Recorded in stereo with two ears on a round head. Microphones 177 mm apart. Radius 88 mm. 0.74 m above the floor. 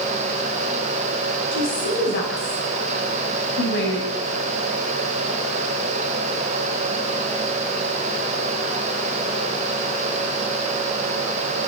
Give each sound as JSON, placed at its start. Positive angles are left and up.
{"t": 1.5, "sound": "a woman speaking", "side_deg": 60, "distance_m": 5.5}